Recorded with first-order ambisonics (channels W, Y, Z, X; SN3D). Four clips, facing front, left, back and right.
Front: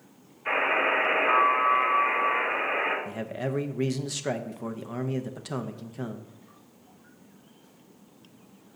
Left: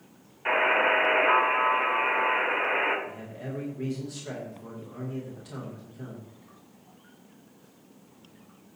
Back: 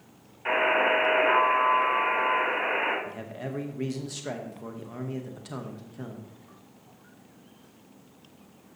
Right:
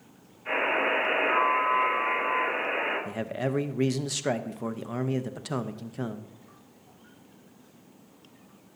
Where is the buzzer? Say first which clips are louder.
Left 3 dB, back 1 dB; 125° left, 5.5 m.